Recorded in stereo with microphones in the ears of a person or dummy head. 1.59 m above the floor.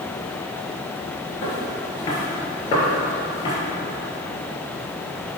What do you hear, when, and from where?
1.4 s footsteps: 30° left (ahead or behind), 1.7 m